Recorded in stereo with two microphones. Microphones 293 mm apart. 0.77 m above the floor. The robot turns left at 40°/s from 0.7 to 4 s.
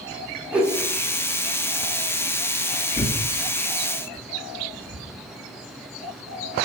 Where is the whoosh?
5° right (ahead or behind), 0.7 m.